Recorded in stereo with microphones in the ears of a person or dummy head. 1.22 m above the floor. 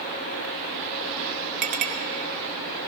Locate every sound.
1.6 s a clink: 45° right (ahead or behind), 1.1 m